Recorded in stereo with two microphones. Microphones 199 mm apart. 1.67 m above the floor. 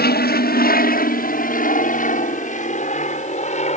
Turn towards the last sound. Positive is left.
turn(degrees=35)  # may be behind; listen again after turning